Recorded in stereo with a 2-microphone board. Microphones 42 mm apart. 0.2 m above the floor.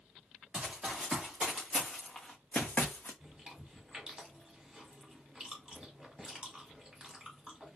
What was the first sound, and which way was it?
Running footsteps, 15° right (ahead or behind).